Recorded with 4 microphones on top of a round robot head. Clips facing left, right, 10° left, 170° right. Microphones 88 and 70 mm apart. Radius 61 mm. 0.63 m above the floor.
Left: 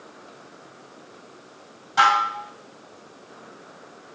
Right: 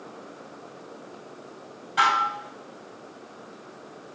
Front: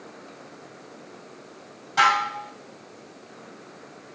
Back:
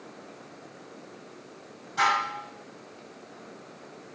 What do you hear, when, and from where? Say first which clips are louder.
2.0 s dishes clattering: left 3 dB, front 5 dB; 25° left, 2.5 m